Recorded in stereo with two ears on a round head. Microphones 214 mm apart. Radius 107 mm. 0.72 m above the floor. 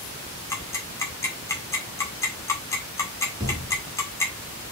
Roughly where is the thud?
Centre.